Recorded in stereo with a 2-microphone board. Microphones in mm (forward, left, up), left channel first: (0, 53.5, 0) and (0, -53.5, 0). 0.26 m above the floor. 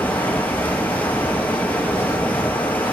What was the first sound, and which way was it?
Running water, 15° left (ahead or behind).